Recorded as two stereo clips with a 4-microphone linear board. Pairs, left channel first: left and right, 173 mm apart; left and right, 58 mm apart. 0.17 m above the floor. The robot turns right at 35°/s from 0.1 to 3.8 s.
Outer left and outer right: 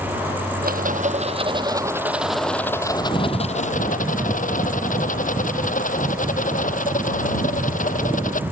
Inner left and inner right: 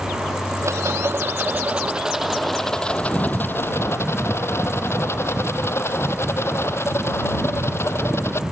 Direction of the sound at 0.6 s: 60° right.